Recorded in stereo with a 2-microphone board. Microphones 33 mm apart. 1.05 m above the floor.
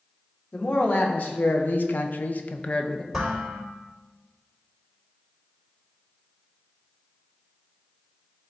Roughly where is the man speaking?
Left.